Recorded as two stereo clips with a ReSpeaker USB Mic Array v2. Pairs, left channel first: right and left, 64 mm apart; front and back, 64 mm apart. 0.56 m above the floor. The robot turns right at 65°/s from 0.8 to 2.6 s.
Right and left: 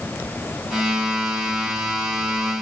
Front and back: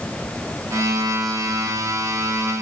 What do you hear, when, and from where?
Only background noise.